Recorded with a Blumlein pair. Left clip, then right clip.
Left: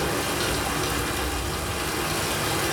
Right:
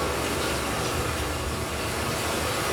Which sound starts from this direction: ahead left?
Running water, at 0.0 s.